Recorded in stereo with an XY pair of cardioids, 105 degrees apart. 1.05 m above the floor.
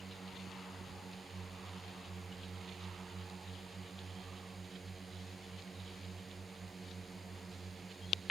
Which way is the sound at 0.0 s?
25° right.